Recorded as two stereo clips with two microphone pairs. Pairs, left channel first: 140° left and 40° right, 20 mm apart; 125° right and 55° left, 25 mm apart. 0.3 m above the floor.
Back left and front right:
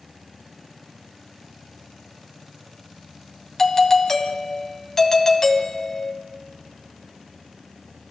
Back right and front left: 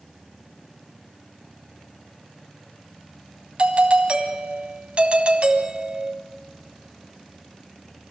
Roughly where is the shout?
No shout in this recording.